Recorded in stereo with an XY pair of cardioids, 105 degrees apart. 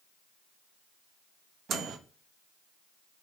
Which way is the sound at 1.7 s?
60° right.